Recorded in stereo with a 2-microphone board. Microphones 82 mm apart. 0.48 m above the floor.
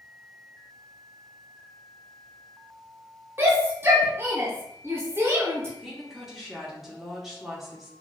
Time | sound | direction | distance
3.4 | a shout | 30° right (ahead or behind) | 0.8 m
5.8 | a woman speaking | centre (ahead or behind) | 0.9 m